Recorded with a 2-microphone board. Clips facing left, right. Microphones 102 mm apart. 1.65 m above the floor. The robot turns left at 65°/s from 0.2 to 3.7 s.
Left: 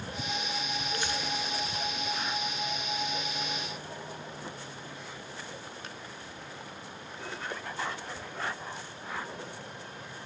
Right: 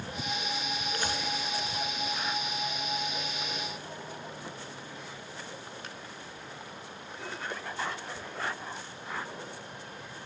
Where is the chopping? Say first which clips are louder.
Right 2 dB; 50° right (ahead or behind), 2.5 m; by 1.2 s 35° right (ahead or behind), 2.5 m.